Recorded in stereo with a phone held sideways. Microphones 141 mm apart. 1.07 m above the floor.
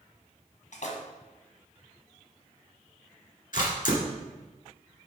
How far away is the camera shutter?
About 1.8 m.